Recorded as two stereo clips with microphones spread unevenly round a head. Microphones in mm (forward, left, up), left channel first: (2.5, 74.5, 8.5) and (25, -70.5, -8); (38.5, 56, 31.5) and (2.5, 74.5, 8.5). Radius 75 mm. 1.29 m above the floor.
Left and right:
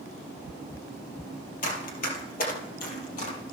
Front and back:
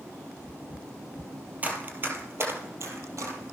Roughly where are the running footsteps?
Left.